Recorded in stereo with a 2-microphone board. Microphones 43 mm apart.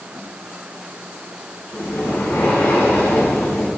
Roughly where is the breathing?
Left.